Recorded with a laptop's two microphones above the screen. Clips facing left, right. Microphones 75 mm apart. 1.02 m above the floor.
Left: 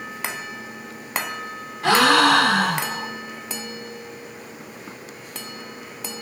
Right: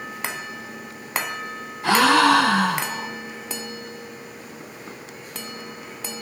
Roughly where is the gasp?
Left.